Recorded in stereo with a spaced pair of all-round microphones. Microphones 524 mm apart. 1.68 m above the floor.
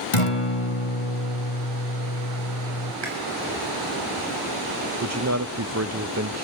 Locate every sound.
0.1 s a guitar: 70° left (ahead or behind), 1.2 m
3.0 s chewing: 55° right (ahead or behind), 7 m
5.0 s a man speaking: 30° right (ahead or behind), 0.5 m